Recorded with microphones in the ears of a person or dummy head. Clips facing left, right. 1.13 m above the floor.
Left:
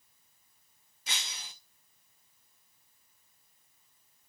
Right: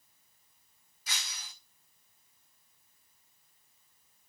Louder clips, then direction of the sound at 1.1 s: Left 1 dB; 25° left (ahead or behind).